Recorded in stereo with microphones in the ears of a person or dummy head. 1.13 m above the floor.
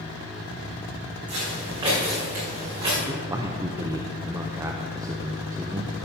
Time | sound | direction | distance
1.3 | footsteps | 20° right (ahead or behind) | 5 m
3.1 | a man speaking | 10° right (ahead or behind) | 0.6 m